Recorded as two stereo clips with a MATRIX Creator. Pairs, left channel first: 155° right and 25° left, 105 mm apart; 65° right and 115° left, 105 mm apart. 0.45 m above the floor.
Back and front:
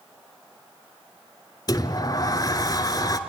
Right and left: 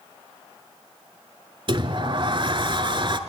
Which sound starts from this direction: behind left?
A sliding door, at 1.7 s.